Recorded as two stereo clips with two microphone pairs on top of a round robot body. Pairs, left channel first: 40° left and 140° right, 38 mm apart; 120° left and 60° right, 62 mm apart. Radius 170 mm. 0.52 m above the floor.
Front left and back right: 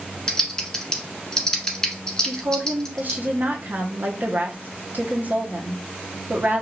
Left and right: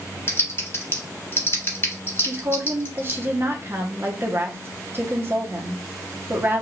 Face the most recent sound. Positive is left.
turn(degrees=-105)